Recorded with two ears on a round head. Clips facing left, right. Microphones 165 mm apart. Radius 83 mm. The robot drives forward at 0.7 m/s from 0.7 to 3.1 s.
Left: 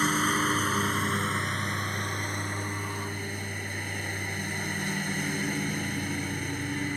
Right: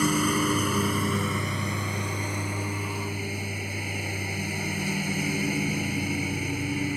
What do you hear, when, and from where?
0.0 s a lawn mower: 10° right (ahead or behind); by 7.0 s 5° right (ahead or behind)